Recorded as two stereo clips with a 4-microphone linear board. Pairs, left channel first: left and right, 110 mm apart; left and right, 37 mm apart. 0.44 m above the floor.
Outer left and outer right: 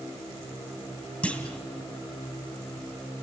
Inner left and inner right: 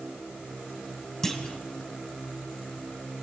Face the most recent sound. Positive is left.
turn(degrees=10)  # may be behind; listen again after turning